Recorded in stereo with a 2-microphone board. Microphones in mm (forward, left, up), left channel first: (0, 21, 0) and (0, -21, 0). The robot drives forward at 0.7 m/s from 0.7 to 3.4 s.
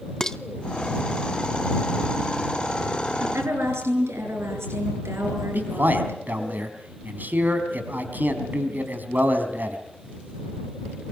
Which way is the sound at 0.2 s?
10° left (ahead or behind).